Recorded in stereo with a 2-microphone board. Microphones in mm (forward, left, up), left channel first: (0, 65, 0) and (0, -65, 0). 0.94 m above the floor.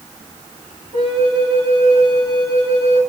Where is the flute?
45° right (ahead or behind), 1.4 m.